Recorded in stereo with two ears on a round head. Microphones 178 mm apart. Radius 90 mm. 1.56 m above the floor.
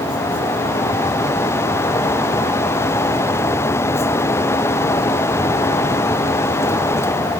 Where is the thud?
I don't hear a thud.